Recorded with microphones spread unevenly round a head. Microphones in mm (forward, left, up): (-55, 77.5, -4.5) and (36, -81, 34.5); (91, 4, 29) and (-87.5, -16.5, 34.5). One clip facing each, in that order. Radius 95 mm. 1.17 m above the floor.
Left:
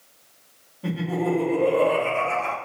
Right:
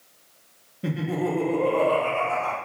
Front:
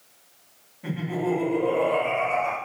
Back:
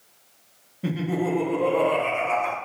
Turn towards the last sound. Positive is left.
turn(degrees=180)